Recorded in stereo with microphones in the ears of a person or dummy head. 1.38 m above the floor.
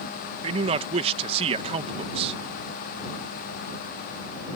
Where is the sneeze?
No sneeze in this recording.